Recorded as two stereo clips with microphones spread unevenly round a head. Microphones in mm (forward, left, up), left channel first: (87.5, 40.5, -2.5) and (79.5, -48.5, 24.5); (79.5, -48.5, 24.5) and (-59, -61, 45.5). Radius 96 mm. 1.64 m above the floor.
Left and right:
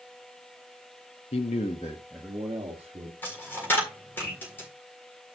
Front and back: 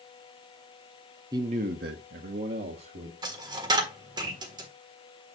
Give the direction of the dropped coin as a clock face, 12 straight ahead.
6 o'clock.